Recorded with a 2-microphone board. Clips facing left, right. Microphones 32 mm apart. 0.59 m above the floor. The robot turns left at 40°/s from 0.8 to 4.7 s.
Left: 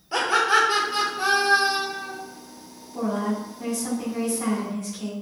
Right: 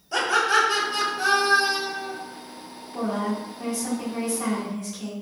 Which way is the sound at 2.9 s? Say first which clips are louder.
Left 1 dB; 80° right.